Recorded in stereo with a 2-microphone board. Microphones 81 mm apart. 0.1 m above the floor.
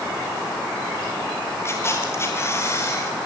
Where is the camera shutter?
30° left (ahead or behind), 4 m.